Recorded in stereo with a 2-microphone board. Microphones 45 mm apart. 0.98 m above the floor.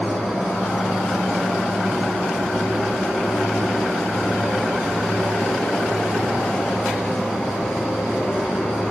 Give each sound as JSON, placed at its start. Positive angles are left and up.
{"t": 0.0, "sound": "an insect", "side_deg": -5, "distance_m": 7.5}